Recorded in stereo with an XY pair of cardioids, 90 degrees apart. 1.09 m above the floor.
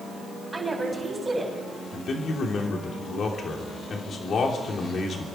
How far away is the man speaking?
About 3 m.